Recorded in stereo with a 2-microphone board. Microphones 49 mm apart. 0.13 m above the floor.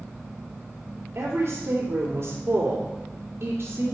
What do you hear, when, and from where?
1.1 s a woman speaking: 55° right (ahead or behind), 3 m